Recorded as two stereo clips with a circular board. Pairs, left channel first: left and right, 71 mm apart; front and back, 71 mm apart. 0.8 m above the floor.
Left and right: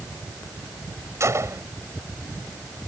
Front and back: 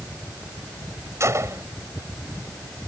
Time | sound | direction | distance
1.2 | a gunshot | 135° right | ?